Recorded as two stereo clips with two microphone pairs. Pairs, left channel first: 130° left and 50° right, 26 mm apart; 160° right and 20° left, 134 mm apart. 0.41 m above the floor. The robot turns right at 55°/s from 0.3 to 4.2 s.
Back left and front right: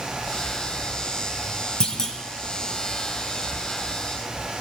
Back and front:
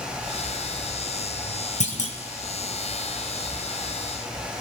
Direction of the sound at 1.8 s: Straight behind.